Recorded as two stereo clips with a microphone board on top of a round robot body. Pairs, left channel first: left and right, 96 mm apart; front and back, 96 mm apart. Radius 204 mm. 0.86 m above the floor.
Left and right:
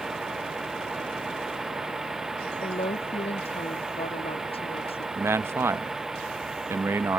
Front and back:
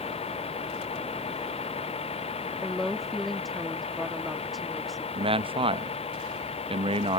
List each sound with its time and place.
0.0 s a vehicle: 5° right
2.6 s a woman speaking: 90° left
5.1 s a man speaking: 155° right